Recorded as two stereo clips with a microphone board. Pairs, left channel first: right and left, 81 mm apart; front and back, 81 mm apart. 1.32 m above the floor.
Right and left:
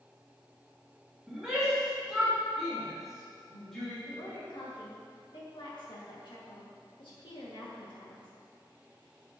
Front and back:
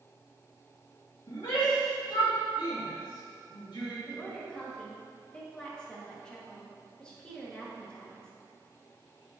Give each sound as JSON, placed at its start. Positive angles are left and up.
{"t": 1.3, "sound": "a shout", "azimuth_deg": 0, "distance_m": 3.0}
{"t": 4.1, "sound": "a woman speaking", "azimuth_deg": -80, "distance_m": 2.0}